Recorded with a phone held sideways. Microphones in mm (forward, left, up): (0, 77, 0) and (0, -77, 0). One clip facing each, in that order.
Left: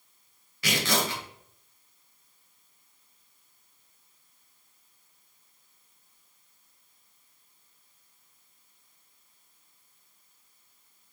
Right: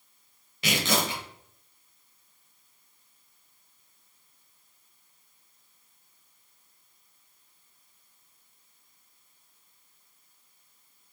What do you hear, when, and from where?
0.6 s tearing paper: 20° right (ahead or behind), 0.9 m